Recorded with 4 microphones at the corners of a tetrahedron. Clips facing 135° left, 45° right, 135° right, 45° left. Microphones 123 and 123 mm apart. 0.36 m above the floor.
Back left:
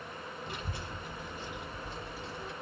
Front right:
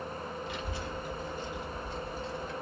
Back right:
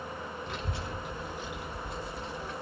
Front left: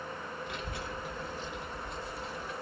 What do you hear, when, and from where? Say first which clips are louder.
0.5 s a child speaking: front right 4 dB, back right 2 dB; 170° left, 1.9 m; by 2.5 s 125° left, 2.5 m